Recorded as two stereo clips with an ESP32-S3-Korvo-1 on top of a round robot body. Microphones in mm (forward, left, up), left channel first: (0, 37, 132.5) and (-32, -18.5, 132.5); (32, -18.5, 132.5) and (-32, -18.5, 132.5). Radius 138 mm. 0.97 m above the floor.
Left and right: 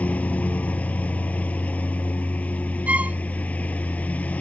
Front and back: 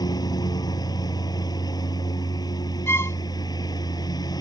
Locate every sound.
0.0 s a lawn mower: 10° right
2.9 s a violin: 50° right